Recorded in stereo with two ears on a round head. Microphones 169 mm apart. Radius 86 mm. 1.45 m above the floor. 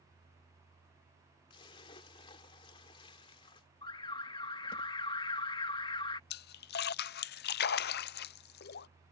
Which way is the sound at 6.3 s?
60° left (ahead or behind).